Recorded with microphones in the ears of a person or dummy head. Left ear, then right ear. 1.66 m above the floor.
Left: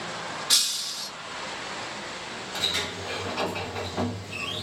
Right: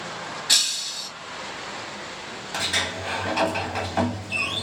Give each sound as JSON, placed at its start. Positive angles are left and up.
{"t": 0.5, "sound": "breaking glass", "side_deg": -15, "distance_m": 1.0}
{"t": 2.5, "sound": "a sliding door", "side_deg": -40, "distance_m": 1.1}